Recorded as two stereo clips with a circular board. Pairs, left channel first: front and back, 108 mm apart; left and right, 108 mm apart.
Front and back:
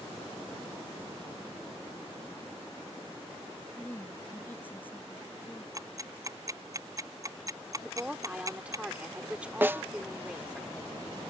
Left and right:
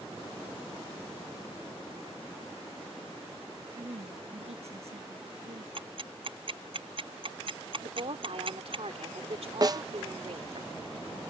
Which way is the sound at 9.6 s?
120° right.